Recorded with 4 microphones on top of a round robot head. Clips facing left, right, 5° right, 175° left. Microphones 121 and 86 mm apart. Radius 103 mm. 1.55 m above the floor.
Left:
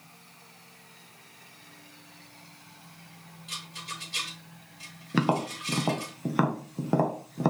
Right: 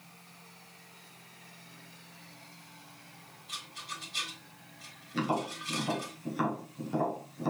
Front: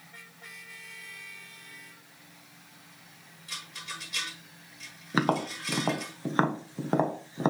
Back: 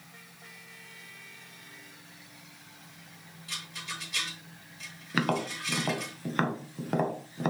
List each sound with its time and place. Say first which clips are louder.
3.5 s a rattle: left 2 dB, back 1 dB; 85° left, 4.5 m
5.1 s tapping: left 5 dB, front 2 dB; 60° left, 1.4 m